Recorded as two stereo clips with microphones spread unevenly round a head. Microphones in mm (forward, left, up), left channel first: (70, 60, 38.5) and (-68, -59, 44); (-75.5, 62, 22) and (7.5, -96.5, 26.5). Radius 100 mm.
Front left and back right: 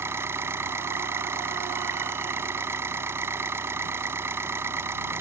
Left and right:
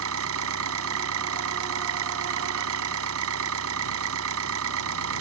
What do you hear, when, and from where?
0.0 s an engine running: 60° right